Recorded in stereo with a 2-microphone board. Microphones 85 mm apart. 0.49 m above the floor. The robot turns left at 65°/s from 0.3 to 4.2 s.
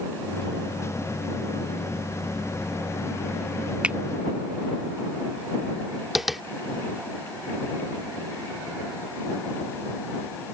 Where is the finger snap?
15° right (ahead or behind); by 4.0 s 10° right (ahead or behind).